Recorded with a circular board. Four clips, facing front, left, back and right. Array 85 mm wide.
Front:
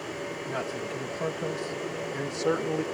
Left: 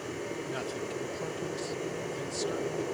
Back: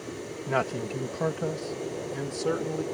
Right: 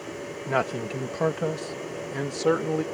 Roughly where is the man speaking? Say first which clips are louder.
Right 8 dB, back 7 dB; behind right.